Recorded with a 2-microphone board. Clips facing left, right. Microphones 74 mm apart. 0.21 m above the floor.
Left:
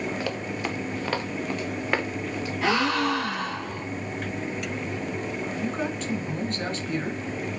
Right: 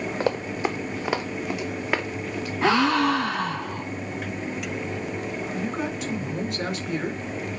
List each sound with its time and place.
0.2 s running footsteps: 35° right (ahead or behind), 1.1 m; by 2.5 s centre (ahead or behind), 2.0 m
2.6 s a gasp: 30° right (ahead or behind), 4 m
5.5 s a man speaking: 10° right (ahead or behind), 3 m